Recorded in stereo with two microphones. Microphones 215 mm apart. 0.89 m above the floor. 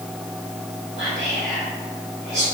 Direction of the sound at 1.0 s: 50° left (ahead or behind).